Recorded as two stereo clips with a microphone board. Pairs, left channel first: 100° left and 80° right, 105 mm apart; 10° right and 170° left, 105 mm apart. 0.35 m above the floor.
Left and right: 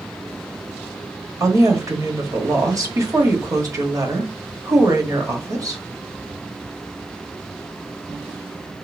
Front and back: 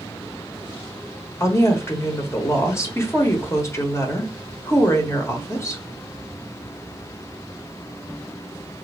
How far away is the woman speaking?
About 1.1 m.